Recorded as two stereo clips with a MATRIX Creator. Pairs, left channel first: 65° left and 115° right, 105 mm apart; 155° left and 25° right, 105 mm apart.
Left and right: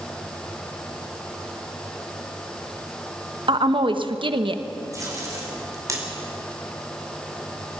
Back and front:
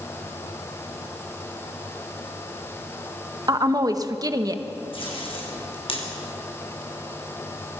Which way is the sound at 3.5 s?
75° right.